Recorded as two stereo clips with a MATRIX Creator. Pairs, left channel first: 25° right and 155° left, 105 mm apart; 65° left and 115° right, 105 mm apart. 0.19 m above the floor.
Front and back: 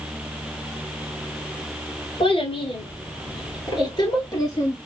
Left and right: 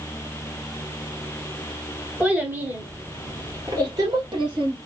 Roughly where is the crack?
No crack in this recording.